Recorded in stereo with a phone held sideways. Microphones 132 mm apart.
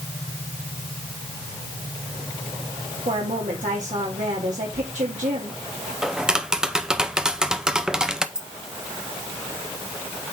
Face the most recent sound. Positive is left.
turn(degrees=-5)  # may be behind; listen again after turning